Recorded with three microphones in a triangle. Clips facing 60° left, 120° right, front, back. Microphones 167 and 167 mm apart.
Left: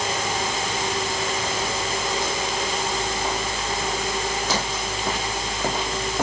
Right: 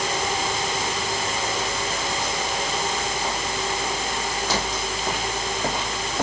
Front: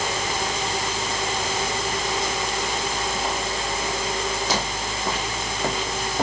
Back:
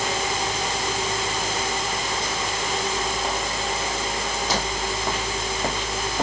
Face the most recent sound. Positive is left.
No sound to turn to.